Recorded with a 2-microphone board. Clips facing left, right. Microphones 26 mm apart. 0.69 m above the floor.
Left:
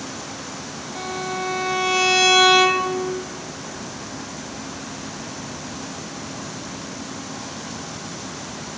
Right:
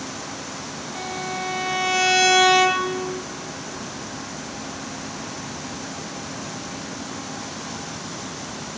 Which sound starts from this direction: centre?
A violin, at 0.9 s.